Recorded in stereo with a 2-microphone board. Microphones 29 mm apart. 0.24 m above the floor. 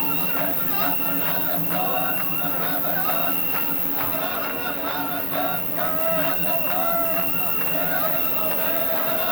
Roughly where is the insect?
Centre.